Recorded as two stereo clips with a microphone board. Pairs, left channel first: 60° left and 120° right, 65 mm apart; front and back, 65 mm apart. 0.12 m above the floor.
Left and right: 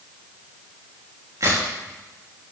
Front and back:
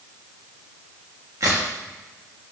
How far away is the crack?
About 3.5 m.